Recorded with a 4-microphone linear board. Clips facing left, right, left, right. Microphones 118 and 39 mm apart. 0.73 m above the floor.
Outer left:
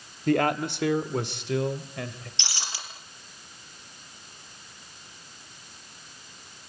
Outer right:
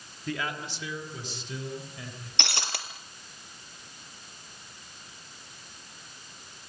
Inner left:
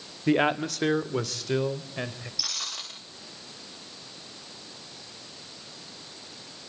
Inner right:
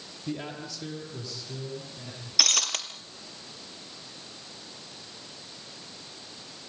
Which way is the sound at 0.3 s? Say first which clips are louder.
Outer left 11 dB, inner left 13 dB; 55° left (ahead or behind).